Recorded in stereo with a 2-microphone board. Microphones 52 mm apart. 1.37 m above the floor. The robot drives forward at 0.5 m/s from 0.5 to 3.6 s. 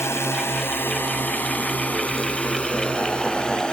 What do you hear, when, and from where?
0.0 s a drone: 55° left (ahead or behind); by 3.7 s 15° left (ahead or behind)